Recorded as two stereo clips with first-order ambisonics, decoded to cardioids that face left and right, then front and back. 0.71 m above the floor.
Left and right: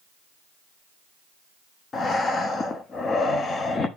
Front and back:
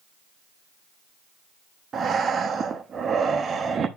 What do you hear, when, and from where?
1.9 s breathing: 135° left, 0.7 m